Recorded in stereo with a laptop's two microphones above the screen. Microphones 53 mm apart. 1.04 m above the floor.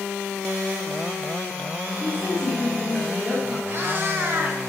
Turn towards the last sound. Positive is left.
turn(degrees=-40)  # may be behind; listen again after turning